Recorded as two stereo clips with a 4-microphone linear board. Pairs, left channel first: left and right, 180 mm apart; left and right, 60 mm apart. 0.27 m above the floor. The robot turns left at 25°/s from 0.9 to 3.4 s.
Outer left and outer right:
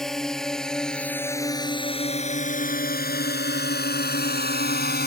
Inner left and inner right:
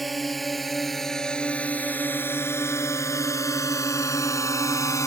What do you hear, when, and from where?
0.0 s a drone: centre (ahead or behind); by 5.1 s 65° left (ahead or behind)